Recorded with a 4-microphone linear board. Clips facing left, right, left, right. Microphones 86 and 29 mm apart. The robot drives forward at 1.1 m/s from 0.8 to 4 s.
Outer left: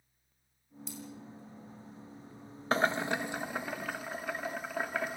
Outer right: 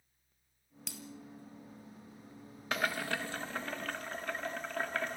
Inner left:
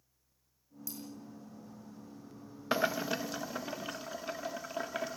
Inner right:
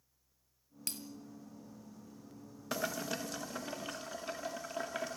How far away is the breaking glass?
About 2.5 m.